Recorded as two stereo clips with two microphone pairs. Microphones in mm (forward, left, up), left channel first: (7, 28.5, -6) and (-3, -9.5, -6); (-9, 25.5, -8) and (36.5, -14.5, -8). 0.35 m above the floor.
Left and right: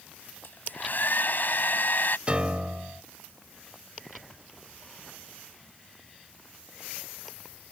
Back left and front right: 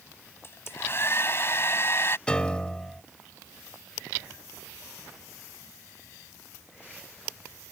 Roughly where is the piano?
Behind right.